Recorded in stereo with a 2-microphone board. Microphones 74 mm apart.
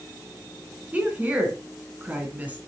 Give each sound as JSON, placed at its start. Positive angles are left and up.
{"t": 0.9, "sound": "a woman speaking", "side_deg": -20, "distance_m": 3.0}